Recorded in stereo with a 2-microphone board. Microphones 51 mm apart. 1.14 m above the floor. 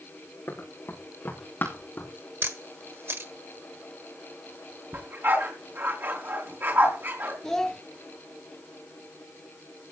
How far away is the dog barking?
About 5 m.